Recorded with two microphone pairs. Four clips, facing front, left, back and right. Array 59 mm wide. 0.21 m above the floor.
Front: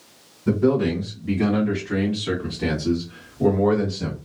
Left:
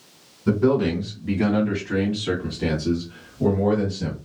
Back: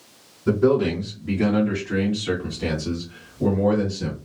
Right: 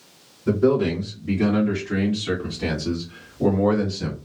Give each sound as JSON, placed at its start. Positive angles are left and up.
{"t": 0.5, "sound": "a man speaking", "azimuth_deg": 100, "distance_m": 2.0}